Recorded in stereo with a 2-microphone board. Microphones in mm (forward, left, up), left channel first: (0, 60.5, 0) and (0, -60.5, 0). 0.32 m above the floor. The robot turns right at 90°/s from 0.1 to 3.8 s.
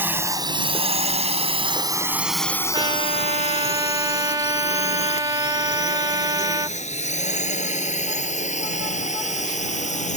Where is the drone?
15° right (ahead or behind); by 10.2 s 80° left.